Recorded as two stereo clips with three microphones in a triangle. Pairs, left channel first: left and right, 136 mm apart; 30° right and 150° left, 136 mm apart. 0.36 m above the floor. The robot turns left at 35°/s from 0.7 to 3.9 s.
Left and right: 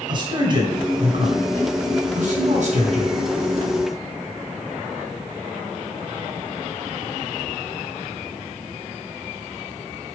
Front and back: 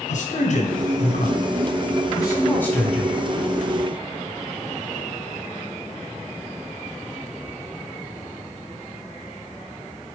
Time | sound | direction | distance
0.1 | a man speaking | 40° right | 2.5 m